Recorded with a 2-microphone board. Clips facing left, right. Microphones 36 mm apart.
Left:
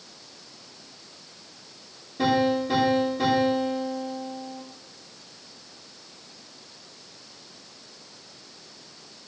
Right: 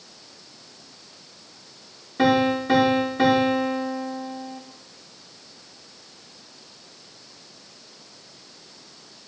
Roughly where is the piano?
Right.